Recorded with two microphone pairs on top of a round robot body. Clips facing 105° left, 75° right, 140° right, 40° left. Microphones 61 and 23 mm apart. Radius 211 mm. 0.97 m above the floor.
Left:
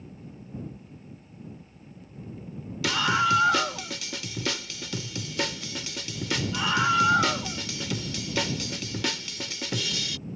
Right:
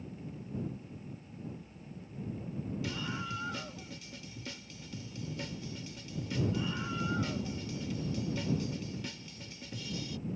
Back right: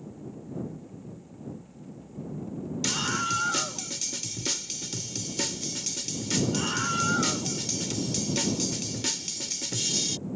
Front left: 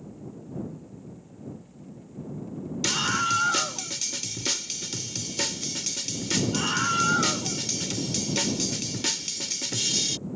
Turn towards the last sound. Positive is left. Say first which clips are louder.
# left 15 dB, front left 4 dB
turn(degrees=110)